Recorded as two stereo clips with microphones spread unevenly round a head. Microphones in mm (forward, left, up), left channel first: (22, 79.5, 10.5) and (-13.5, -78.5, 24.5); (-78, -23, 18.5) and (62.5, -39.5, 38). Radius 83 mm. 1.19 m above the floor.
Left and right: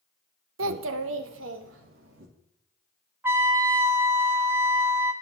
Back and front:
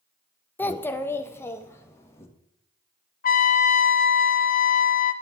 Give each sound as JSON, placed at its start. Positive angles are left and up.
{"t": 0.6, "sound": "a child speaking", "azimuth_deg": -110, "distance_m": 0.5}
{"t": 3.2, "sound": "a trumpet", "azimuth_deg": 180, "distance_m": 0.7}